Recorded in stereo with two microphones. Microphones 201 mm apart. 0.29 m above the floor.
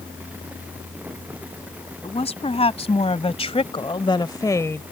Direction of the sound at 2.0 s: 30° left (ahead or behind).